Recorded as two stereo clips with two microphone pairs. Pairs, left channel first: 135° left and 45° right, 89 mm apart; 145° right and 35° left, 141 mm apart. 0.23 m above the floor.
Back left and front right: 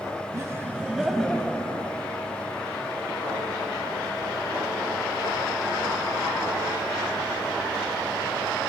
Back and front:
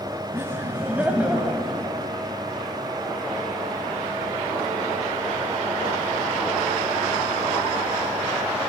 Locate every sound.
0.3 s laughter: 25° right, 1.5 m; by 1.9 s 120° left, 1.5 m